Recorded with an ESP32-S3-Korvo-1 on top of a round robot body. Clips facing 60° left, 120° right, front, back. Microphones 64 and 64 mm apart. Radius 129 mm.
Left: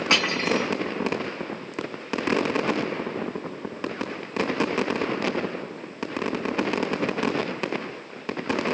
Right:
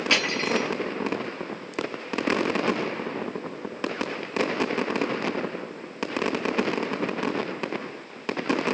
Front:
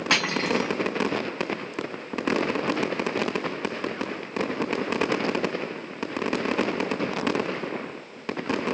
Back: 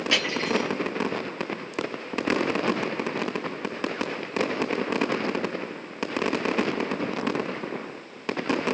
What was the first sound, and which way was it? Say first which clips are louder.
Cutlery clinking: left 2 dB, front 2 dB; straight ahead.